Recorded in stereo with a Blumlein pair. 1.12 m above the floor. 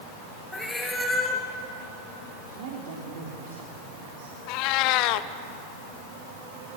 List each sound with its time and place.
0.5 s a cat meowing: 5° left, 3.5 m
2.5 s a man speaking: 50° right, 3.5 m
4.5 s a cat meowing: 40° left, 0.9 m